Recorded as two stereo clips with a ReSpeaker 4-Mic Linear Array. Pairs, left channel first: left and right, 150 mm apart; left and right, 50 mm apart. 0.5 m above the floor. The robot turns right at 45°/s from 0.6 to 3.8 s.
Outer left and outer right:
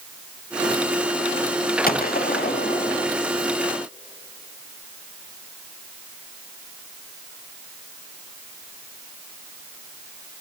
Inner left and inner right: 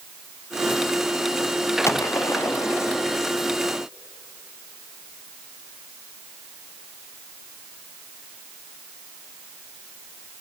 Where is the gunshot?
65° left, 1.0 m; by 3.0 s 120° left, 1.0 m.